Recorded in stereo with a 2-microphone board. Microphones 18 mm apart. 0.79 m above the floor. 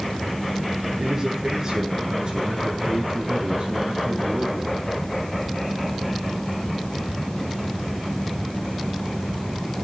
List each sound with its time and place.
1.0 s a man speaking: 30° right (ahead or behind), 9 m; by 4.9 s 50° right (ahead or behind), 9.5 m